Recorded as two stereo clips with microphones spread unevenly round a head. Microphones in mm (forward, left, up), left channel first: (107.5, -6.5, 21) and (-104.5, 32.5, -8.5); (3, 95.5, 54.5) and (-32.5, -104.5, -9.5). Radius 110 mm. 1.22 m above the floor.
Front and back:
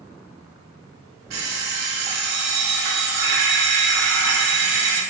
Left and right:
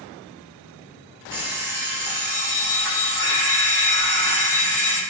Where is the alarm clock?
170° left, 1.4 m.